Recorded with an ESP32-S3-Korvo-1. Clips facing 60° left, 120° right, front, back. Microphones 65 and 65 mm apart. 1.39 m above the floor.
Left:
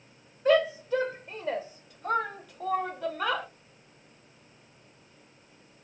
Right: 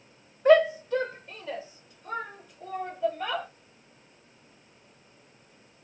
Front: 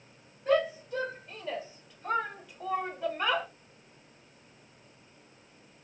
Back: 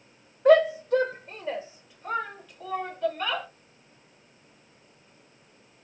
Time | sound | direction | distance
0.5 | a shout | 175° left | 0.7 m